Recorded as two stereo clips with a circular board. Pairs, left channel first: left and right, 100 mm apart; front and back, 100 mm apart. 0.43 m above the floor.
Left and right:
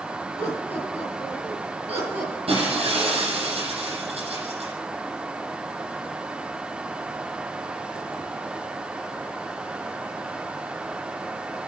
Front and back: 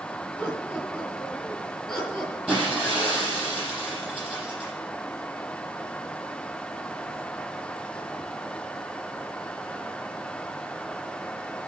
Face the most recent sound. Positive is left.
turn(degrees=-95)